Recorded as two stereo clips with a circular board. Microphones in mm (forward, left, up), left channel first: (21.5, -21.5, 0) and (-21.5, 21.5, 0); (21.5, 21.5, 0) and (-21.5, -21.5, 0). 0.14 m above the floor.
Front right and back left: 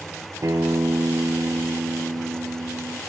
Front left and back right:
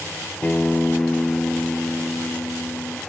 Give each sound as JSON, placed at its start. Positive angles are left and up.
{"t": 0.4, "sound": "a guitar", "azimuth_deg": 110, "distance_m": 0.7}